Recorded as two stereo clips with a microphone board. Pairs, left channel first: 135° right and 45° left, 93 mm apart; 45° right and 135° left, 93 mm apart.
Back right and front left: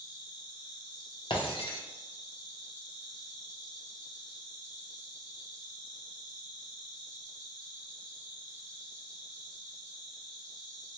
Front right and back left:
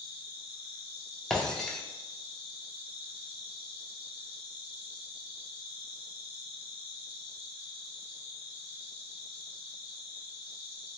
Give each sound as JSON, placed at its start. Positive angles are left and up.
{"t": 0.0, "sound": "an insect", "azimuth_deg": -155, "distance_m": 1.5}
{"t": 1.3, "sound": "breaking glass", "azimuth_deg": -130, "distance_m": 0.6}